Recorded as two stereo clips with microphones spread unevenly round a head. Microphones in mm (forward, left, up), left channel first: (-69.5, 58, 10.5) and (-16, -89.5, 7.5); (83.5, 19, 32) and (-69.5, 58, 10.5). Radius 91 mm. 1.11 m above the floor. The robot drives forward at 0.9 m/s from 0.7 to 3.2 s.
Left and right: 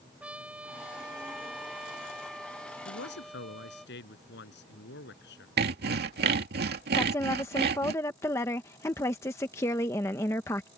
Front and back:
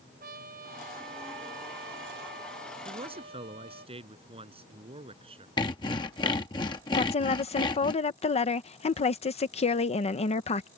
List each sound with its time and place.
0.2 s a trumpet: 150° right; by 3.9 s 160° right
2.9 s a man speaking: 110° left
5.6 s sawing: 85° right
6.9 s a woman speaking: 35° left